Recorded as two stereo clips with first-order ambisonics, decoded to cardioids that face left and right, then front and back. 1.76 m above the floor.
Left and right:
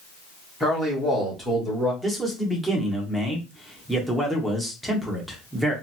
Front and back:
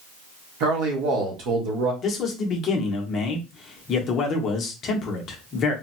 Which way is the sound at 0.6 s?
Straight behind.